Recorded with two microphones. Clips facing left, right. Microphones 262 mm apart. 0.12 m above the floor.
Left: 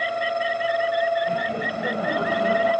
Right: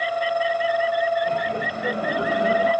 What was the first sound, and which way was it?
Laughter, 25° right (ahead or behind).